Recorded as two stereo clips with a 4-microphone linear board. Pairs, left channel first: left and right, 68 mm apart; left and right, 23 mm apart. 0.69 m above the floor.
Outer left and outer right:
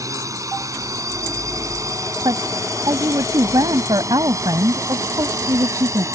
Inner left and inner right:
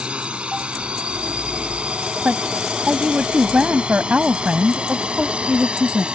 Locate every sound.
0.0 s a drone: 55° right (ahead or behind); by 6.2 s 50° right (ahead or behind)
2.2 s a woman speaking: 80° right